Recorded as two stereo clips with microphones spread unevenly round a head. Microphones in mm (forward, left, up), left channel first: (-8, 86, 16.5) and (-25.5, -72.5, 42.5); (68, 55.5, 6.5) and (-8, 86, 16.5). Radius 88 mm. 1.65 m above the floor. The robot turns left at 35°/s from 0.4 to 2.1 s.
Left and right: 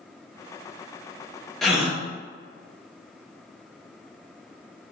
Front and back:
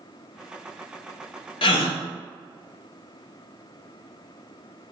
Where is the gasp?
5° right, 0.5 m; by 2.0 s 20° right, 0.5 m.